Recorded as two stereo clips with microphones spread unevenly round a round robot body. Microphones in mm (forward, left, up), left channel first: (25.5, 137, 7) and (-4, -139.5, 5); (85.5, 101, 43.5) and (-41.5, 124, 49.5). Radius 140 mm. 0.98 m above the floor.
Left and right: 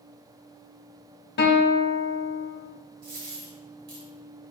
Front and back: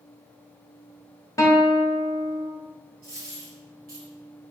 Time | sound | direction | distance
1.4 | a guitar | 50° left | 0.8 m
3.0 | a dropped coin | 145° right | 1.8 m